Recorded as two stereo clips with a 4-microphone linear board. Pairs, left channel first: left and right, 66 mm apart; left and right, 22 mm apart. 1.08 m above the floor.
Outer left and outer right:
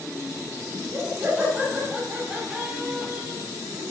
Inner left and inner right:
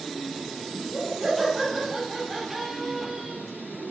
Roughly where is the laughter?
Right.